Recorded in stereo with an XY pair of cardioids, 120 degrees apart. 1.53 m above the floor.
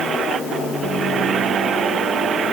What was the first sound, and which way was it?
Only background noise.